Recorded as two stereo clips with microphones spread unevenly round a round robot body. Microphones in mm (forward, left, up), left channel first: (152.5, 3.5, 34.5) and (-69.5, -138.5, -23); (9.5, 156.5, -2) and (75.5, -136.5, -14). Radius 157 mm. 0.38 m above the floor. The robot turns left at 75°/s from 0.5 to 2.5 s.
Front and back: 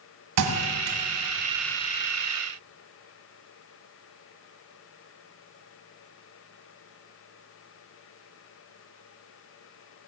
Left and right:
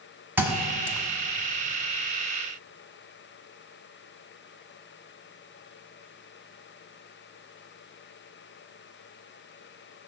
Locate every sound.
0.4 s a thud: 160° right, 1.4 m; by 1.0 s 165° left, 1.4 m